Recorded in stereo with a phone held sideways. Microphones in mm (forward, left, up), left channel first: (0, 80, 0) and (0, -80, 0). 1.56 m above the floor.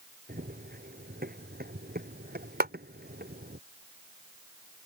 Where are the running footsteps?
70° right (ahead or behind); by 3.6 s 75° right (ahead or behind).